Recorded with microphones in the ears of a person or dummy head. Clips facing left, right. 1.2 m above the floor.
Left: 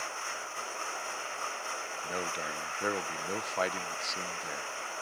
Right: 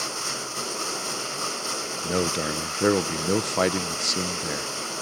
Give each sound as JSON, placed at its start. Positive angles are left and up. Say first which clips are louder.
{"t": 0.0, "sound": "running water", "louder": "right 8 dB", "side_deg": -55}
{"t": 2.0, "sound": "a man speaking", "louder": "right 13 dB", "side_deg": -55}